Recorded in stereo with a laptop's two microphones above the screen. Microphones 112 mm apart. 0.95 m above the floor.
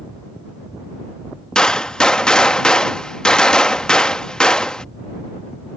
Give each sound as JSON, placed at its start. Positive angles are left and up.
{"t": 1.6, "sound": "a gunshot", "side_deg": 10}